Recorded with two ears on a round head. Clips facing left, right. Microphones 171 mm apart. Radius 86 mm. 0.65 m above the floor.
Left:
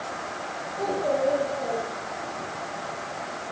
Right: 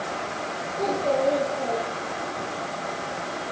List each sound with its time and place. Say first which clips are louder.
0.8 s a child speaking: right 1 dB; centre (ahead or behind), 8 m